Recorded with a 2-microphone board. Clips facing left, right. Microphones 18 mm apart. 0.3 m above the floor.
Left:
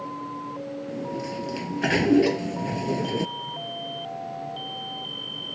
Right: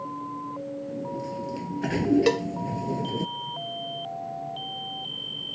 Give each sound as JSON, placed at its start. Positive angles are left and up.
{"t": 0.9, "sound": "a sliding door", "side_deg": 40}
{"t": 2.3, "sound": "a cowbell", "side_deg": -35}